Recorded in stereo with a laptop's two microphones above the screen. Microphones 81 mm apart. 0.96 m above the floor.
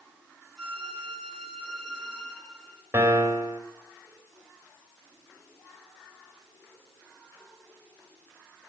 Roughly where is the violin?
Centre.